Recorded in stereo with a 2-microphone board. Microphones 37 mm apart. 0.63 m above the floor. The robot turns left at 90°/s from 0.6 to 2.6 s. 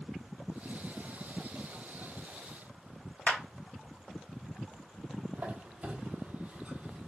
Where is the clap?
45° left (ahead or behind), 1.7 m.